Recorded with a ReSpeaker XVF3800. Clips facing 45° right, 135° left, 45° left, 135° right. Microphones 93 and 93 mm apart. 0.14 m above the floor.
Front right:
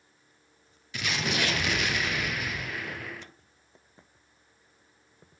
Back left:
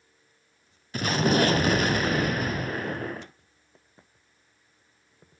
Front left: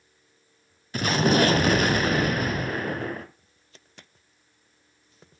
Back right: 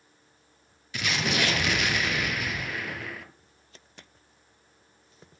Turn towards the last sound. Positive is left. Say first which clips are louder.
# back left 8 dB, front left 8 dB
turn(degrees=90)